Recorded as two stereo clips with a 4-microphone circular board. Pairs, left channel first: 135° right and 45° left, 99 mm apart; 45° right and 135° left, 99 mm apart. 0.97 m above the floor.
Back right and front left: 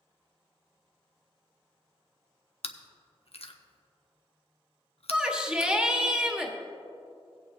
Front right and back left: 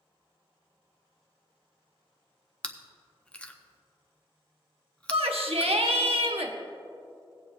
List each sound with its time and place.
2.6 s chewing: 125° right, 0.7 m
5.1 s a shout: 125° left, 1.3 m